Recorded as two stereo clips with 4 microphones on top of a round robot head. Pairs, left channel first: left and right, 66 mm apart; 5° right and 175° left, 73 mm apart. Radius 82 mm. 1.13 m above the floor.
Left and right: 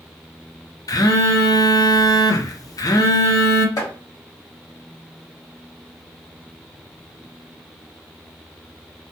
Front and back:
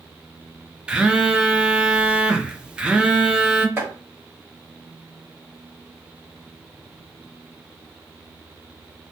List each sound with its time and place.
0.9 s a phone buzzing: 100° left, 0.5 m
3.8 s chopping: 115° left, 1.4 m